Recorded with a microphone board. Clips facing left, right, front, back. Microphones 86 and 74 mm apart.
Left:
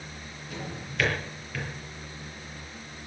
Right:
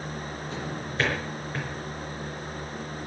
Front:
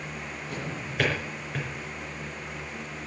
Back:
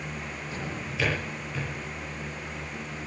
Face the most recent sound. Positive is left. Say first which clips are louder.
# right 1 dB, front 1 dB
turn(degrees=-35)